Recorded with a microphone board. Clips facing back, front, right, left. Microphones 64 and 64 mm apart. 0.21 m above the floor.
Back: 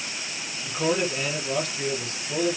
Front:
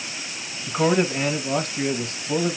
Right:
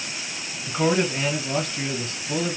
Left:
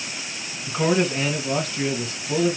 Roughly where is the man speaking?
Ahead.